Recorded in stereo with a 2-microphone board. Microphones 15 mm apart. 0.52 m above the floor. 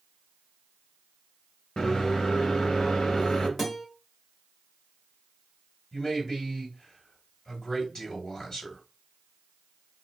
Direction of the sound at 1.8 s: 60° left (ahead or behind).